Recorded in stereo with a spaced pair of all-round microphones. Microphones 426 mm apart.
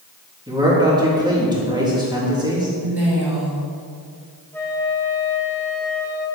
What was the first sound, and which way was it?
A man speaking, 10° right (ahead or behind).